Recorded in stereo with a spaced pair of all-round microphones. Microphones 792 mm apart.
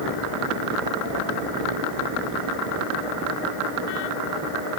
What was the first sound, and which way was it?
Only background noise.